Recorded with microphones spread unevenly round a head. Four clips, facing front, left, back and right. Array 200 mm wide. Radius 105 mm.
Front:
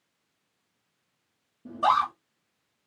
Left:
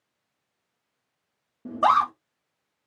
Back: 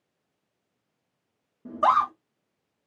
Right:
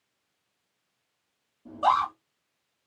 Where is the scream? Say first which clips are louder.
Left 3 dB, back 2 dB; 95° left, 2.5 m.